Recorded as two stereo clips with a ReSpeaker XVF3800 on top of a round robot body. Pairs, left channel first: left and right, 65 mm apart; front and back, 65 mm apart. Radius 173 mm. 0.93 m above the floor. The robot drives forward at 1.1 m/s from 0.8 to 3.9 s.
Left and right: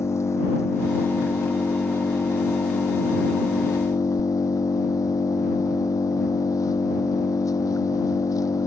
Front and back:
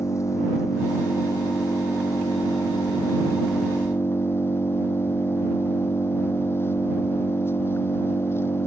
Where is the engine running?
45° left; by 8.7 s 55° left.